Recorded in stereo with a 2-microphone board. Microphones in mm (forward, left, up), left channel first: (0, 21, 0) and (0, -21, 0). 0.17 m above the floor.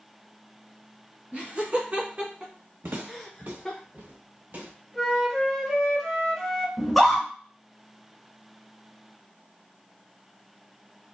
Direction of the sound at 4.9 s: Centre (ahead or behind).